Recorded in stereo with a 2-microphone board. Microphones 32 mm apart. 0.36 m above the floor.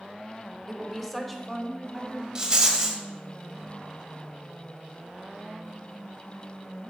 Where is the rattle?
25° right (ahead or behind), 1.4 m.